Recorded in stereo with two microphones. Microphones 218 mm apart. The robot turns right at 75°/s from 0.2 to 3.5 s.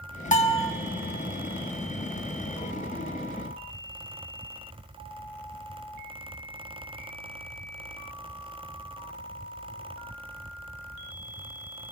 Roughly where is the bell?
Left.